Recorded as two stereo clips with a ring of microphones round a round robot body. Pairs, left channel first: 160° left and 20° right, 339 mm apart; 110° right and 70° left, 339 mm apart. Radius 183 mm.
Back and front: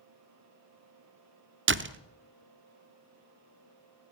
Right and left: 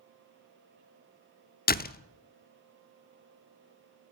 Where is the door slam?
60° right, 0.8 m.